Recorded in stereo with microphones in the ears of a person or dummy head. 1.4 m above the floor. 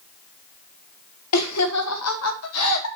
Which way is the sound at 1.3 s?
85° left.